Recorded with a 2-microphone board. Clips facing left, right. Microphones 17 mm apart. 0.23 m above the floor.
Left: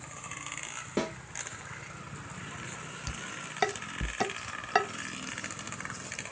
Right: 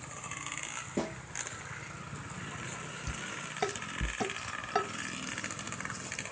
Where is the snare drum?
60° left (ahead or behind), 3.5 m.